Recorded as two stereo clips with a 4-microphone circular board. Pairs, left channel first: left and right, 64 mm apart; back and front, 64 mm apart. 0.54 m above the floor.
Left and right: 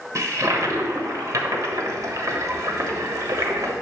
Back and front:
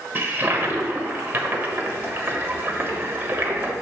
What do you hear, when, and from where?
0.1 s a toilet flushing: 60° right, 1.1 m